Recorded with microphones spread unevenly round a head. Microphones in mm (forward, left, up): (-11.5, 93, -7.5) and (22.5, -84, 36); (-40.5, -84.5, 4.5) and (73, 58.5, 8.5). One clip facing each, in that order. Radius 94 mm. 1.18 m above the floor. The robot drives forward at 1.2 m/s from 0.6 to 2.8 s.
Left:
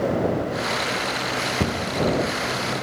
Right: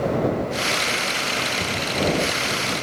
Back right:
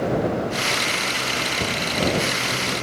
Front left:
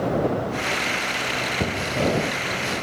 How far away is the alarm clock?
I don't hear an alarm clock.